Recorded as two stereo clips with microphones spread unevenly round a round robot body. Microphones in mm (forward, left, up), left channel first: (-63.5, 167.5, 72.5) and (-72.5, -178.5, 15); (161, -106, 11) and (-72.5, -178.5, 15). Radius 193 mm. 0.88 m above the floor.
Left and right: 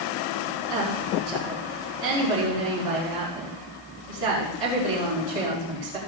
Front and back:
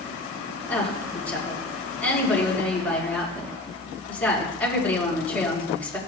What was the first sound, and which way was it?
A woman speaking, 65° right.